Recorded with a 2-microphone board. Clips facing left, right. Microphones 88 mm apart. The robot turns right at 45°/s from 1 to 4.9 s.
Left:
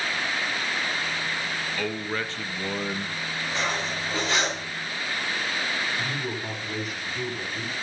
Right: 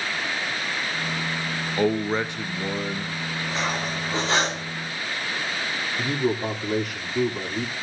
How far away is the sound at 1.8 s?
About 0.9 m.